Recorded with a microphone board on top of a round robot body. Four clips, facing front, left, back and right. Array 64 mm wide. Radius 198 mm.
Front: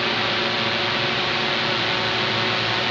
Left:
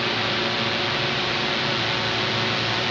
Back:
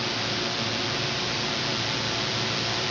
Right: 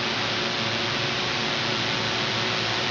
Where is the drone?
15° left; by 2.9 s 10° left.